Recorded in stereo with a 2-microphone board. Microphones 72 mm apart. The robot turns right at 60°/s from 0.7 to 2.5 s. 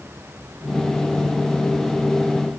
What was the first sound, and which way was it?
Only background noise.